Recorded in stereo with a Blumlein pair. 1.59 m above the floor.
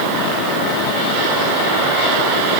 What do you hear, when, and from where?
Only background noise.